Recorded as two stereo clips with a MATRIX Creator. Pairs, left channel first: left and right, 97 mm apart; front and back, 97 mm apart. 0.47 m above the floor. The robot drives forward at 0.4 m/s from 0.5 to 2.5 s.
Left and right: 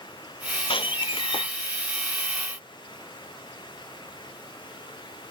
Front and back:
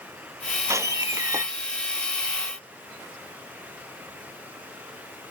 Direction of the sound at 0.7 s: 120° left.